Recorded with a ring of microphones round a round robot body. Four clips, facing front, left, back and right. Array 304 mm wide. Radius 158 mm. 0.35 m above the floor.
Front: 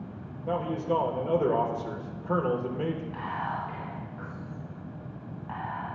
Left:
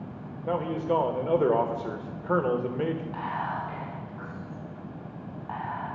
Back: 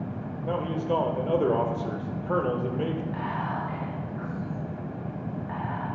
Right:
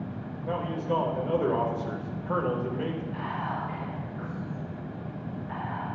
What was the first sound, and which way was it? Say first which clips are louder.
A man speaking: left 3 dB, even; 105° left.